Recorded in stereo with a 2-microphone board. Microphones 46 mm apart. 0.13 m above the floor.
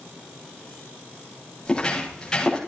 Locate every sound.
1.6 s footsteps: 15° left (ahead or behind), 5.5 m